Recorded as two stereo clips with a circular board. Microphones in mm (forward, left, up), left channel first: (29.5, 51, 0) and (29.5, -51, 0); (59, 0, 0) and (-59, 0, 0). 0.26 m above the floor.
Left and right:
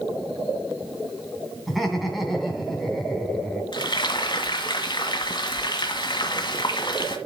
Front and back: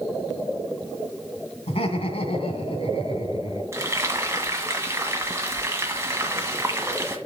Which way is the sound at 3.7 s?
115° left.